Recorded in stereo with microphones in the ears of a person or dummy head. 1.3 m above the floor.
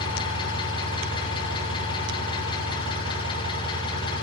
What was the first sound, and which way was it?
An engine running, 30° left (ahead or behind).